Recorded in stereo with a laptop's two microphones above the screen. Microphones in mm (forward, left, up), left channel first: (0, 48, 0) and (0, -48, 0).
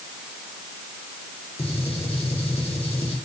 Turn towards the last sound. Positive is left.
turn(degrees=75)  # may be behind; listen again after turning